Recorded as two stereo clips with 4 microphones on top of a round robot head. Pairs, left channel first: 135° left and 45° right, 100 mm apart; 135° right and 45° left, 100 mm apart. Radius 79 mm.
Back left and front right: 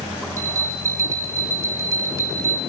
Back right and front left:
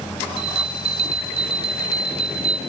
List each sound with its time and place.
0.4 s a bell: 20° left, 1.4 m